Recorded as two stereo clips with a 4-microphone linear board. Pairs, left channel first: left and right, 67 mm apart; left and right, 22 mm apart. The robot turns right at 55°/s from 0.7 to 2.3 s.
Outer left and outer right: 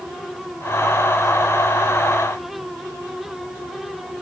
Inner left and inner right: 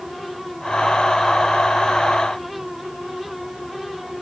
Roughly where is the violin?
No violin in this recording.